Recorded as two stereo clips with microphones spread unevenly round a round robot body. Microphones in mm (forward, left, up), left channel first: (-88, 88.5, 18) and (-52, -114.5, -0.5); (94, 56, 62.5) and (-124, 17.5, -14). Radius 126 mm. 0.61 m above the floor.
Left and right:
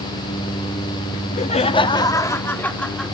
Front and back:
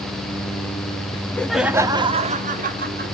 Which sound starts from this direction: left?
Laughter, at 1.1 s.